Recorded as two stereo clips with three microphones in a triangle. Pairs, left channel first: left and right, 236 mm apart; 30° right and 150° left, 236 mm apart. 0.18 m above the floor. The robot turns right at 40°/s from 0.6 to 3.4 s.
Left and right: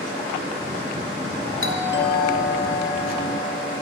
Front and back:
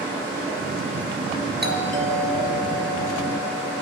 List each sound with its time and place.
1.6 s a doorbell: 110° left, 3.5 m; by 3.8 s straight behind, 3.5 m